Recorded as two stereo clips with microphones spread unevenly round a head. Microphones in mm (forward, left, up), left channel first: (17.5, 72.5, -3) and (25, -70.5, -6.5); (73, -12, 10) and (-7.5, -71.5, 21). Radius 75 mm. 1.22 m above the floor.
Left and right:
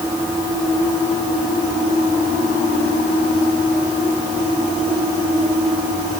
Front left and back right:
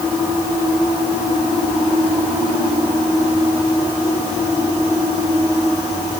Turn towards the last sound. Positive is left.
No sound to turn to.